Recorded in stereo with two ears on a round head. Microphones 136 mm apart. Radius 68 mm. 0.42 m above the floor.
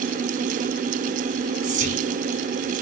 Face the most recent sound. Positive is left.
turn(degrees=-50)  # may be behind; listen again after turning